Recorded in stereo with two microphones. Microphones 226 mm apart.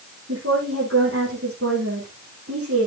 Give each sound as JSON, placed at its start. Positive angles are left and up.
{"t": 0.3, "sound": "a woman speaking", "side_deg": -80, "distance_m": 8.0}